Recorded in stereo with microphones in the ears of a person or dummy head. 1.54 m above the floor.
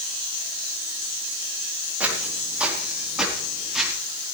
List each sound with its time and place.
2.0 s footsteps: 20° right (ahead or behind), 4.5 m; by 3.9 s 10° right (ahead or behind), 5.5 m